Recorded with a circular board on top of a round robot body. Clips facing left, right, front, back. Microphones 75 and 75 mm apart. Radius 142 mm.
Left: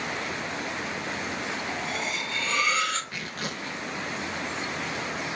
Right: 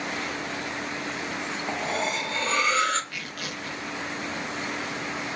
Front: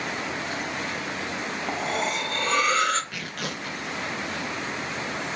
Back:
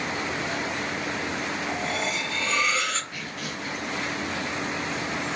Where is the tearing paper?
30° left, 0.5 m.